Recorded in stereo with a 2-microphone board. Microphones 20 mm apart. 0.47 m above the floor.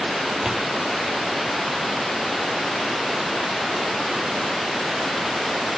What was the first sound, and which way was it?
A door slam, 30° right (ahead or behind).